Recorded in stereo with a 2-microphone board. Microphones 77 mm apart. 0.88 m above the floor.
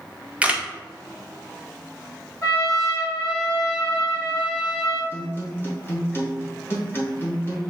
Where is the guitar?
30° left (ahead or behind), 1.2 m.